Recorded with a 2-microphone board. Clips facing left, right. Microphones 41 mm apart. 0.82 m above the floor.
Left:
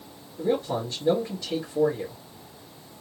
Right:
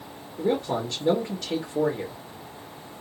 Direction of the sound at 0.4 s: 65° right (ahead or behind).